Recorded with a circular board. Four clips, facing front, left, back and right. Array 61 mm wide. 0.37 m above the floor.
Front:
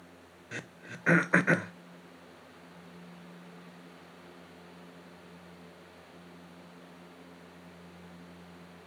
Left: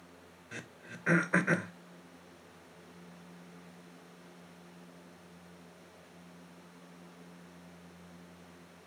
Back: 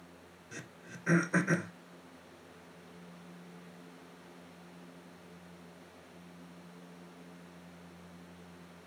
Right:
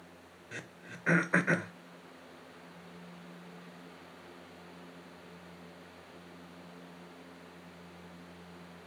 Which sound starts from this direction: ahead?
Throat clearing, at 0.5 s.